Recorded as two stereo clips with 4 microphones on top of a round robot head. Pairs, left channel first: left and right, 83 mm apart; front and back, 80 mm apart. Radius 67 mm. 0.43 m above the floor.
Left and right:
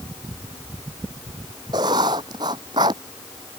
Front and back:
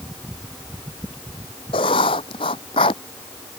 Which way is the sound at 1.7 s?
35° right.